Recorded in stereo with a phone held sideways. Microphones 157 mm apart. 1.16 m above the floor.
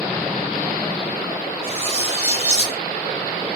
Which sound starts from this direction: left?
Cutlery clinking, at 1.6 s.